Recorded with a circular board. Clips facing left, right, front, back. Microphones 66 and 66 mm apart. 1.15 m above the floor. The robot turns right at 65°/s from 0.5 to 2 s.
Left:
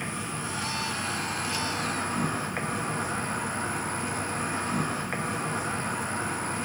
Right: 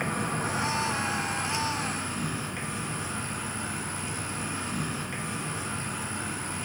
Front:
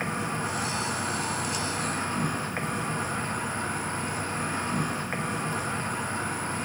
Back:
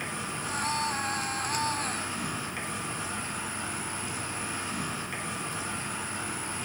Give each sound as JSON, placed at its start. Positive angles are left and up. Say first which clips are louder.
{"t": 0.0, "sound": "an insect", "louder": "right 4 dB, front 5 dB", "azimuth_deg": -50, "distance_m": 0.9}